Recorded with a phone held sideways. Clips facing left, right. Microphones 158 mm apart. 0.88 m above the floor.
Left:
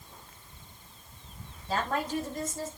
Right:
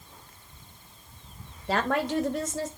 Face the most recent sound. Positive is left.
turn(degrees=-80)